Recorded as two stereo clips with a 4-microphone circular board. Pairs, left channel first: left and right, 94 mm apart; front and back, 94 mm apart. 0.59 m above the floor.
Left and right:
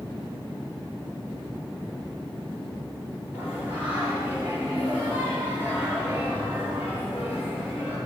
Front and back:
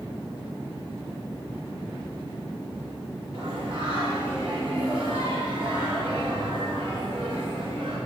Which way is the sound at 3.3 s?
165° right.